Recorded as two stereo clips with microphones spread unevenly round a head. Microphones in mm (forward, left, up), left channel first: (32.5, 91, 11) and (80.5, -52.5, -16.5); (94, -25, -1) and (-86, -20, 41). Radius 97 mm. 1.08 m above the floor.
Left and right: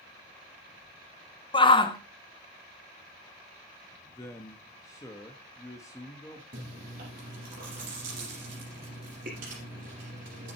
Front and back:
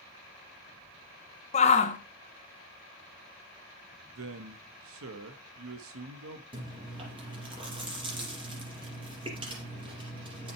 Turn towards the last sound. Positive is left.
turn(degrees=-120)